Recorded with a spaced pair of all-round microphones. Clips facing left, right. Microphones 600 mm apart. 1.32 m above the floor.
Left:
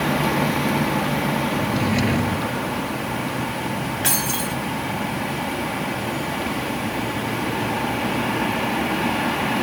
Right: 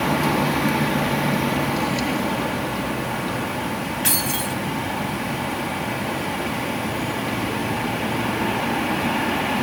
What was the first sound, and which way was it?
A drawer, 80° left.